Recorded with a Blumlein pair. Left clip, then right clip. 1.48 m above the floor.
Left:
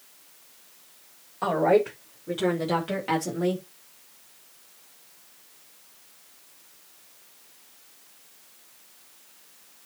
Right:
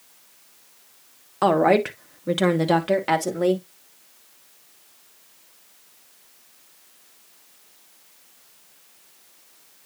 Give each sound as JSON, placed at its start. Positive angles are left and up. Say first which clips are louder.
{"t": 1.4, "sound": "a woman speaking", "louder": "right 4 dB", "azimuth_deg": -30, "distance_m": 1.8}